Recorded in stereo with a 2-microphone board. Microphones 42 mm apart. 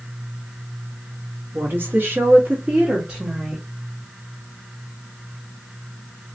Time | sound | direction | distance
1.5 | a woman speaking | 60° right (ahead or behind) | 1.6 m